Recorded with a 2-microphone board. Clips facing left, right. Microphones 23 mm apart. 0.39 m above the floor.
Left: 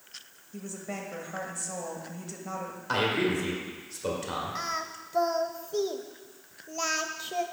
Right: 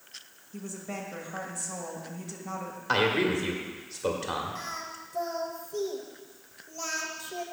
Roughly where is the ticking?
No ticking in this recording.